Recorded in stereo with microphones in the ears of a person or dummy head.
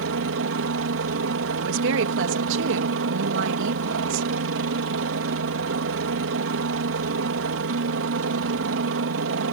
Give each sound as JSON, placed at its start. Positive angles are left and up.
{"t": 0.0, "sound": "a helicopter", "side_deg": -65}
{"t": 1.6, "sound": "a woman speaking", "side_deg": -65}